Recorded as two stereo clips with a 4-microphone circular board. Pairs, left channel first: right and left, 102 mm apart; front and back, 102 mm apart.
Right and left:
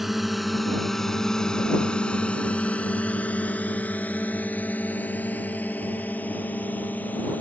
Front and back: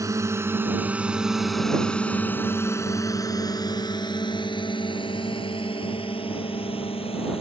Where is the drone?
175° left; by 7.4 s 15° right.